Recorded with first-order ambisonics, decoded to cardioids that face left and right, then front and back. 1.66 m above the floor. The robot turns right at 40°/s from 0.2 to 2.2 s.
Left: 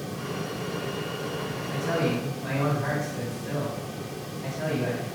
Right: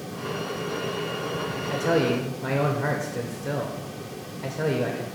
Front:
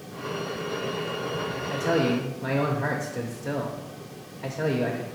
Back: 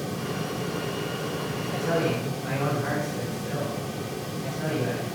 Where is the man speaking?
70° right, 0.7 m; by 5.0 s 50° right, 0.7 m.